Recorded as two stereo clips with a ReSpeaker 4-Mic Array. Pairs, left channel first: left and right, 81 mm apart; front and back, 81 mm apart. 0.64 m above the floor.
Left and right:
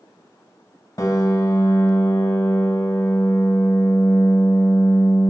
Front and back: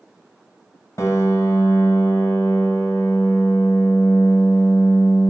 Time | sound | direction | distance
1.0 | a piano | 45° left | 1.3 m